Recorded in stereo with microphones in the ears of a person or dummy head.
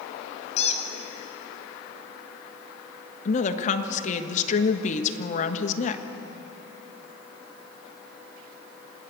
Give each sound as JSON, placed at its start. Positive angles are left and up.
{"t": 0.6, "sound": "a squeak", "side_deg": 35, "distance_m": 2.0}
{"t": 3.2, "sound": "a woman speaking", "side_deg": 35, "distance_m": 1.5}